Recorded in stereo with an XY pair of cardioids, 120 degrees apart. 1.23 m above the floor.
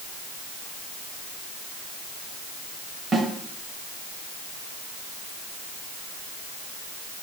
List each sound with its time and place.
3.1 s a snare drum: 40° right, 2.5 m